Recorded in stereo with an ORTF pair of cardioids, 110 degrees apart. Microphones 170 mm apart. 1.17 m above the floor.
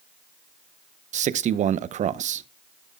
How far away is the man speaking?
About 0.8 m.